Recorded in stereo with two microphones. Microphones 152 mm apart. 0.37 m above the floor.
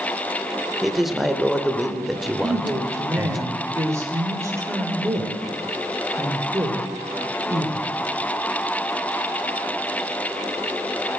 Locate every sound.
0.8 s a man speaking: centre (ahead or behind), 0.9 m
2.4 s a woman speaking: 20° right (ahead or behind), 1.4 m